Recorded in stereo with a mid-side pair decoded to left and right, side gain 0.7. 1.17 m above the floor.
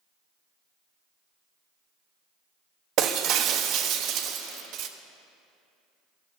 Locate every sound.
3.0 s breaking glass: 55° right, 0.9 m